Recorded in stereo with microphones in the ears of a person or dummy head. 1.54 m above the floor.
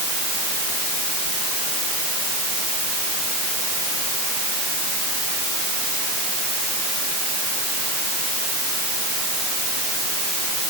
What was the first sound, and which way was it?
Only background noise.